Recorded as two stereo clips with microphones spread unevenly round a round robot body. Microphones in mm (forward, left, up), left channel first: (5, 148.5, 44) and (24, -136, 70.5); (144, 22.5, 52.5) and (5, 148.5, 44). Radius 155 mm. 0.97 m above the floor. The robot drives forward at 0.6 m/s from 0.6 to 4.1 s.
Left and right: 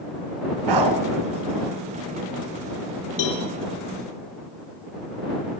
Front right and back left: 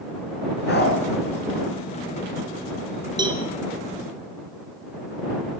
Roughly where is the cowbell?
Left.